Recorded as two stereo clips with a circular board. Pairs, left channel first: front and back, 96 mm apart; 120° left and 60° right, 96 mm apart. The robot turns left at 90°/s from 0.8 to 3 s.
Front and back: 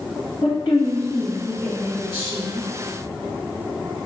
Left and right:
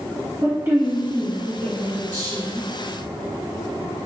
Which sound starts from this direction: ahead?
A woman speaking, at 0.4 s.